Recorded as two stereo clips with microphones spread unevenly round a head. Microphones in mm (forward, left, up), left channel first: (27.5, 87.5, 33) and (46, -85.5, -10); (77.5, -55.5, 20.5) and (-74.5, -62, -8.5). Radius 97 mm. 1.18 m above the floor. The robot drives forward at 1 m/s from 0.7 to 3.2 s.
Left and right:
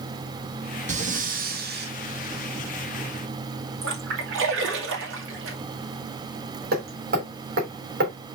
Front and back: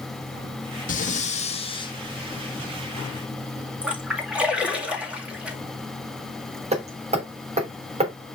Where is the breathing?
35° right, 2 m; by 1.9 s 65° right, 1.4 m.